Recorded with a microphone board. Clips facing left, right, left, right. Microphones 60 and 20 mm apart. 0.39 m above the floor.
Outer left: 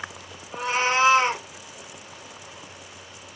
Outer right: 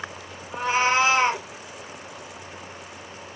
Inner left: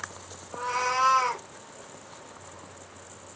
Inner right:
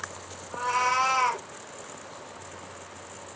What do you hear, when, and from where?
0.5 s a cat meowing: 20° right (ahead or behind), 2.5 m